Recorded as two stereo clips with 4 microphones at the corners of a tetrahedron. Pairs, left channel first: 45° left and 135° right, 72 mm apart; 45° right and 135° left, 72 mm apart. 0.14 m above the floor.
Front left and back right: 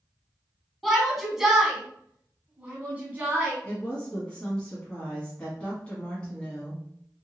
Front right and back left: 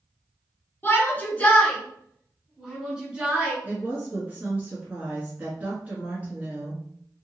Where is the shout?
40° right, 1.4 m; by 3.5 s 170° right, 1.4 m.